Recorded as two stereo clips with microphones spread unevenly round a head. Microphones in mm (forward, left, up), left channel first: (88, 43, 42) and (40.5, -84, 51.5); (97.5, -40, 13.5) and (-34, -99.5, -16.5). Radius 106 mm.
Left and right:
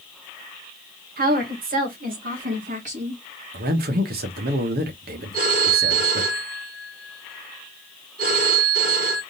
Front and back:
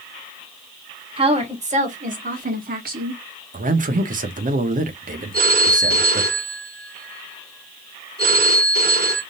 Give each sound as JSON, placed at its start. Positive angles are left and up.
{"t": 1.2, "sound": "a woman speaking", "azimuth_deg": -110, "distance_m": 1.6}
{"t": 3.5, "sound": "a man speaking", "azimuth_deg": -125, "distance_m": 1.0}
{"t": 5.3, "sound": "a phone ringing", "azimuth_deg": -145, "distance_m": 2.0}